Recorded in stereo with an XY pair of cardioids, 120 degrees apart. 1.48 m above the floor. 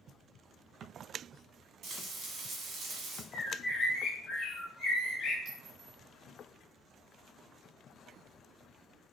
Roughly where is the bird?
Ahead left.